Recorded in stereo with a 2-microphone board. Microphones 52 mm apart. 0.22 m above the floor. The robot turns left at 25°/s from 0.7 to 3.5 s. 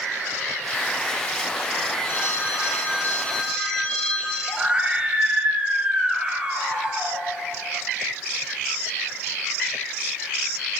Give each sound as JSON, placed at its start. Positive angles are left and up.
{"t": 2.0, "sound": "a phone ringing", "azimuth_deg": 55, "distance_m": 6.0}
{"t": 4.5, "sound": "a scream", "side_deg": -20, "distance_m": 5.0}